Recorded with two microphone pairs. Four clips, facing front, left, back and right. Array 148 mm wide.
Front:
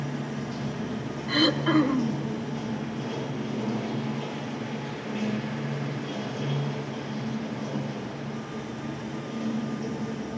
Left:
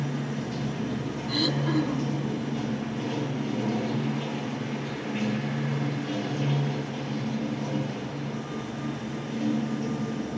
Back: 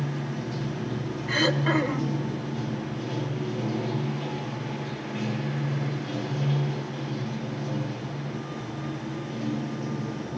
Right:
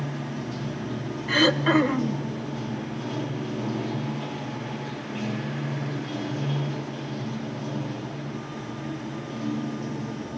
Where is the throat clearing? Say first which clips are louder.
Right 7 dB, front 2 dB; 105° right, 1.0 m.